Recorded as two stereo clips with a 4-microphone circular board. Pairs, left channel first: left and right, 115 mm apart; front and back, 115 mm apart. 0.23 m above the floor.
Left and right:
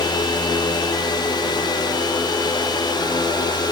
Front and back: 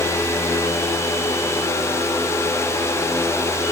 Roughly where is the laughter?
No laughter in this recording.